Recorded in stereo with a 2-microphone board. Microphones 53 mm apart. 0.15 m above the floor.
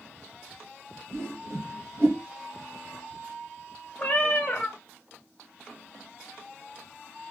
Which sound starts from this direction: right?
A whoosh, at 1.1 s.